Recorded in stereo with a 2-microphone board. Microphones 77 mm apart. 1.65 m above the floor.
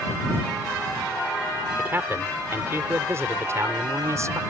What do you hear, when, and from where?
1.8 s a man speaking: 30° right (ahead or behind); by 4.4 s 40° right (ahead or behind)